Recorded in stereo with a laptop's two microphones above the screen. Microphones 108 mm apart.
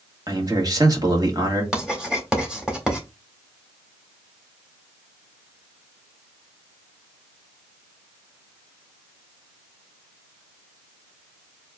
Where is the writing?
10° right (ahead or behind), 1.7 m.